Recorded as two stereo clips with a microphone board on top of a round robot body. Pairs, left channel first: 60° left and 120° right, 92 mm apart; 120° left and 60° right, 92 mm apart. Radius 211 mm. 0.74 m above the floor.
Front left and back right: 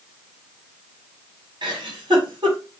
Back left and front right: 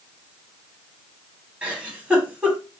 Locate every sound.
1.6 s a giggle: 135° right, 2.5 m